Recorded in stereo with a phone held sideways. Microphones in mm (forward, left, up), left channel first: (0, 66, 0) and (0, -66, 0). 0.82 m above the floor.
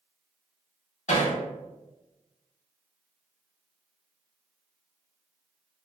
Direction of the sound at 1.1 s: 65° left (ahead or behind).